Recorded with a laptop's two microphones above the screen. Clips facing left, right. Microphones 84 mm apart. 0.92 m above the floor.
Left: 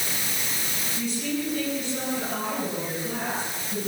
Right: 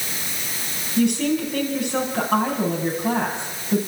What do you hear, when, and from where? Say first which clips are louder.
1.0 s a woman speaking: right 10 dB; 70° right (ahead or behind), 6.5 m